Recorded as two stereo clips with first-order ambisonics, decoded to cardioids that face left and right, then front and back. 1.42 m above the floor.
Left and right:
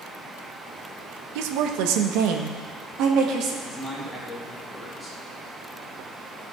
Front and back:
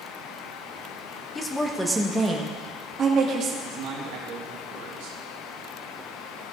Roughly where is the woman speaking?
Right.